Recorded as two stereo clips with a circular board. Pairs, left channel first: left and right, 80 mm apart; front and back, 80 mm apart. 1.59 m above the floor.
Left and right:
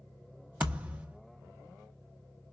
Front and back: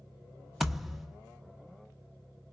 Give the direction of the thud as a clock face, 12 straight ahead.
3 o'clock.